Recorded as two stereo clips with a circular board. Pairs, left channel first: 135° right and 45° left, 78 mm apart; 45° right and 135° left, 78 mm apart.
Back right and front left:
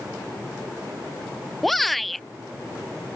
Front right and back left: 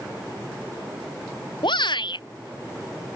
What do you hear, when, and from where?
1.6 s a shout: 45° right